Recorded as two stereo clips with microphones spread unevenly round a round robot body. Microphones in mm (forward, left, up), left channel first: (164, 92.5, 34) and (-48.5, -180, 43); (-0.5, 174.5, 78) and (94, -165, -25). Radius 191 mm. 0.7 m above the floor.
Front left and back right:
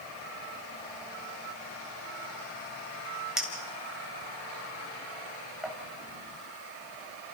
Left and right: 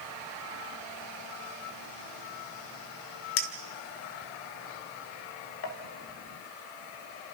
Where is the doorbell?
I don't hear a doorbell.